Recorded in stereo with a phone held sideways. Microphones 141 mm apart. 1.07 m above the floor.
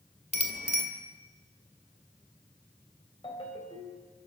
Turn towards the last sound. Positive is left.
turn(degrees=40)  # may be behind; listen again after turning